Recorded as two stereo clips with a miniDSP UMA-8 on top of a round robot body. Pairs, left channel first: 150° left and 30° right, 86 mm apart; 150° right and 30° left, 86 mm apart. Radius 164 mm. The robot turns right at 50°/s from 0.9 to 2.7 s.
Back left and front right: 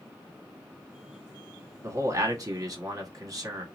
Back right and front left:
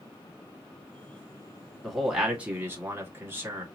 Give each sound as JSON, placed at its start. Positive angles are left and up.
{"t": 1.8, "sound": "a man speaking", "azimuth_deg": -65, "distance_m": 1.6}